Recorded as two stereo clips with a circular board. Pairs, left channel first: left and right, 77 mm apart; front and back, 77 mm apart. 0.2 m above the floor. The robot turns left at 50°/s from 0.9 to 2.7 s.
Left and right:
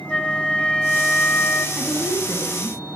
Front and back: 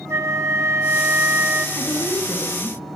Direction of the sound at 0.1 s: 160° left.